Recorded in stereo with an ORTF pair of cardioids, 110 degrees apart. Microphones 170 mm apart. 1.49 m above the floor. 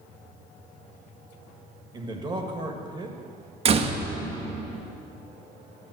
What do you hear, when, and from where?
1.9 s a man speaking: 25° right, 1.5 m
3.6 s a door slam: 40° right, 1.0 m